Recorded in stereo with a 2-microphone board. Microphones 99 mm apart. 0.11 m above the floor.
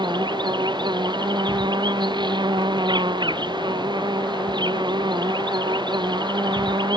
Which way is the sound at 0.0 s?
55° right (ahead or behind).